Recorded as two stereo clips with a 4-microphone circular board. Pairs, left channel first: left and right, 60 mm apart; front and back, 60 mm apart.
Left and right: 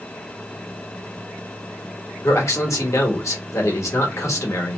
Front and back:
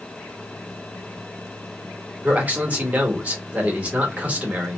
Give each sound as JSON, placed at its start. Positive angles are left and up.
{"t": 2.2, "sound": "a man speaking", "azimuth_deg": 115, "distance_m": 1.1}